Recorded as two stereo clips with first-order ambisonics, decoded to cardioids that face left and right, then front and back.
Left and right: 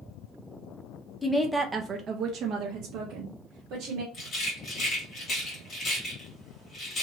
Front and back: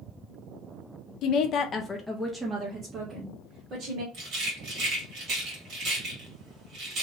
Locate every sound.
1.2 s a woman speaking: 15° left, 0.6 m; by 4.0 s 130° right, 1.4 m
4.1 s a rattle: 150° left, 1.7 m